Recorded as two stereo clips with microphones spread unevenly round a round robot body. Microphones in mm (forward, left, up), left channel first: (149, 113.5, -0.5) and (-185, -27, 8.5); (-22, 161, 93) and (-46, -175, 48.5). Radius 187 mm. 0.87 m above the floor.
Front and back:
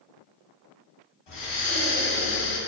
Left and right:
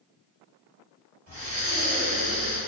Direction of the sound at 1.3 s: 10° right.